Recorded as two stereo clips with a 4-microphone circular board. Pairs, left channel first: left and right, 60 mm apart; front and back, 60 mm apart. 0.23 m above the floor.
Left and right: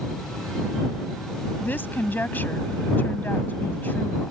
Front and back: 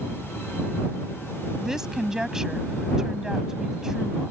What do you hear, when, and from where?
1.6 s a woman speaking: 105° left